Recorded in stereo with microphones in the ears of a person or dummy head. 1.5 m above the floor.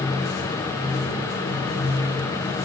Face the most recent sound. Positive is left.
No sound to turn to.